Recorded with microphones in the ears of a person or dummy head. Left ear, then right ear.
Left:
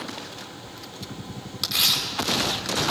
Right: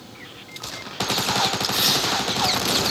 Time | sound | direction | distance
1.6 | tearing paper | 45° left (ahead or behind) | 7 m